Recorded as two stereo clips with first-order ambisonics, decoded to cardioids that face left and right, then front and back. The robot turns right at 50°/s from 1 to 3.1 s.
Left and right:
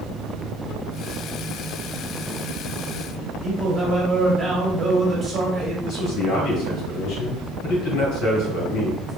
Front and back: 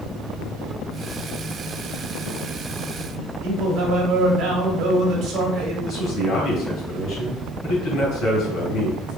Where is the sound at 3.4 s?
160° right, 1.2 m.